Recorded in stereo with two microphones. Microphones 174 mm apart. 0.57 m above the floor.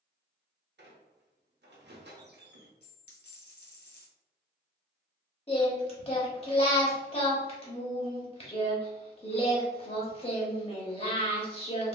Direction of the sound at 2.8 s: 70° left (ahead or behind).